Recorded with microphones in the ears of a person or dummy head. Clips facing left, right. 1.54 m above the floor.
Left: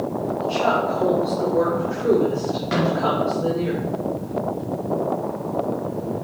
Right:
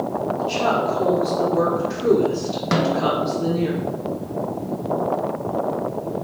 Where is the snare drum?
60° right (ahead or behind), 0.8 m.